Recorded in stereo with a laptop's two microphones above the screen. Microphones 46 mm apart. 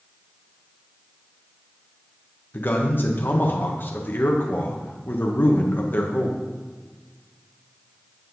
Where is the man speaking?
45° left (ahead or behind), 1.1 m.